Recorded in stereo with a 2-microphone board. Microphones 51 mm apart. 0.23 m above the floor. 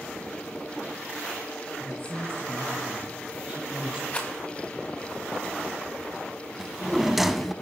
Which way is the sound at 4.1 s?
25° left (ahead or behind).